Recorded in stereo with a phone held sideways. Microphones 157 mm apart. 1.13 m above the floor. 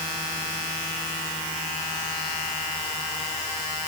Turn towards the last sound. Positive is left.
No sound to turn to.